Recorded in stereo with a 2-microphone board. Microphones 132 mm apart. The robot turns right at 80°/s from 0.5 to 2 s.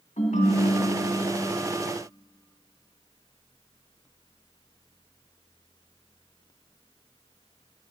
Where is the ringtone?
95° left, 1.2 m; by 1.5 s 175° left, 1.2 m.